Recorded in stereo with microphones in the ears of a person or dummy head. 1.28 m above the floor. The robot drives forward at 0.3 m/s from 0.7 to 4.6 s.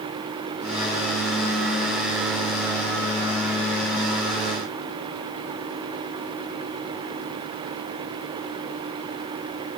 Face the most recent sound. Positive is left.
No sound to turn to.